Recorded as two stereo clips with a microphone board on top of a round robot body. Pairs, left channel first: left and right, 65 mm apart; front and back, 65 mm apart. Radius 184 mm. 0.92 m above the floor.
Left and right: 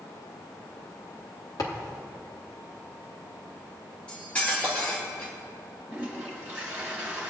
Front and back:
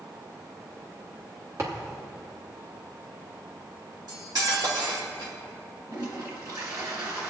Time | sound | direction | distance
1.6 | a thud | 130° left | 0.9 m
4.1 | cutlery clinking | 165° left | 2 m
5.9 | a toilet flushing | 160° right | 3 m